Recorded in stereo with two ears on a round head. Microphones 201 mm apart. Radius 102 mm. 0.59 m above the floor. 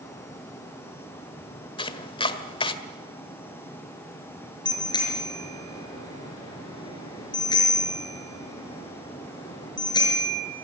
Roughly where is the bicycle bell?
Centre.